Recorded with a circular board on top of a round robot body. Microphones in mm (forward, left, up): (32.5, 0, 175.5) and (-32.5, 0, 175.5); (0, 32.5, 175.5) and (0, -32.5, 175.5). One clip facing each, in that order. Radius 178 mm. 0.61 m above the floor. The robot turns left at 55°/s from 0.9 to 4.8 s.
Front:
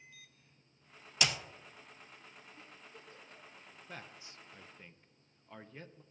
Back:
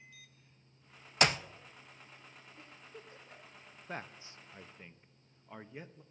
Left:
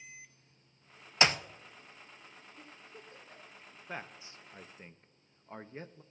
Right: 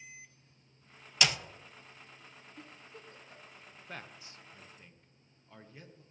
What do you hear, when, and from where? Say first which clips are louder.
1.2 s a clap: back 6 dB, left 3 dB; 145° left, 0.6 m; by 1.4 s 130° left, 0.6 m
2.6 s a giggle: back 2 dB, right 2 dB; 70° right, 3 m; by 3.6 s 125° right, 3 m
3.9 s a man speaking: back 6 dB, left 4 dB; 160° left, 0.6 m; by 6.0 s 110° left, 0.6 m